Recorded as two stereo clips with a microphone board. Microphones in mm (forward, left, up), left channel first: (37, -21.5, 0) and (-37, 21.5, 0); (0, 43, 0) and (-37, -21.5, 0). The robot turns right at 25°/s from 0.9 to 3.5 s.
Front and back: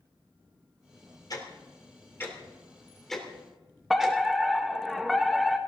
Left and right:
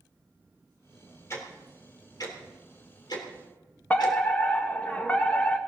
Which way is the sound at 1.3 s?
10° left.